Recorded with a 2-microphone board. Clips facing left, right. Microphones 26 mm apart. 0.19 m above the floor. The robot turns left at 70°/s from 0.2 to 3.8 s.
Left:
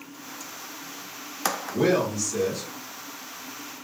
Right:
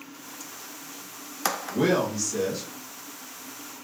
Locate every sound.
1.7 s a man speaking: 20° right (ahead or behind), 1.8 m